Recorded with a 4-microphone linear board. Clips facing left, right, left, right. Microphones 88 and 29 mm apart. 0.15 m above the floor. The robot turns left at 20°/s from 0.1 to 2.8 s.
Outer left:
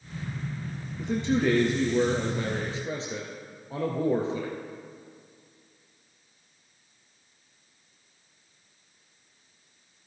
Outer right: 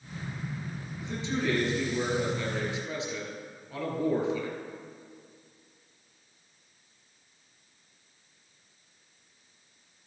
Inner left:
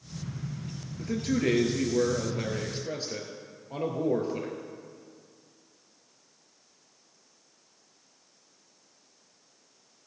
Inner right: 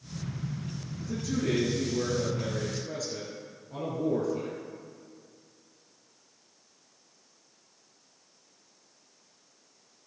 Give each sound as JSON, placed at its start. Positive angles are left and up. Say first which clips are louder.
{"t": 1.0, "sound": "a man speaking", "louder": "outer left 7 dB, inner left 4 dB", "azimuth_deg": 75, "distance_m": 3.0}